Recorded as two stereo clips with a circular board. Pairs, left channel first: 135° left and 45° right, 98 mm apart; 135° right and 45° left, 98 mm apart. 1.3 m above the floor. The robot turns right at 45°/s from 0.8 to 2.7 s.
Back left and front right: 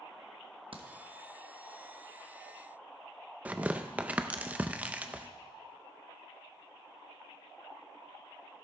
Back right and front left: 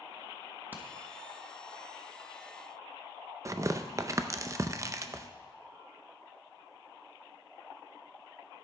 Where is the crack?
25° right, 1.0 m; by 0.9 s 20° right, 1.0 m.